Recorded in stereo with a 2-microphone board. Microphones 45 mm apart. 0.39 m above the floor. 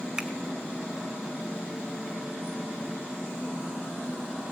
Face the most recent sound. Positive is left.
turn(degrees=-15)  # may be behind; listen again after turning